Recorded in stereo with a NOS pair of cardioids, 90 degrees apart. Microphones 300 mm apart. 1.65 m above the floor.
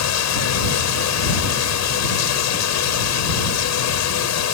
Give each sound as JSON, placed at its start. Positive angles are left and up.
{"t": 0.0, "sound": "running water", "azimuth_deg": 65}